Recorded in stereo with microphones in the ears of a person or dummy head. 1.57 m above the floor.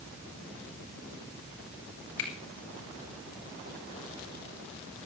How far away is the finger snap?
About 7 m.